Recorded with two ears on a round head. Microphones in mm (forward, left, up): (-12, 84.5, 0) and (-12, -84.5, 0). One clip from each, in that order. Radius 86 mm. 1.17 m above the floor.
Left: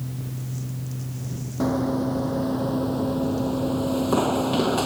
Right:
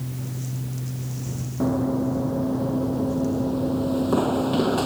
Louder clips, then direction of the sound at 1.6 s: Even; 65° left (ahead or behind).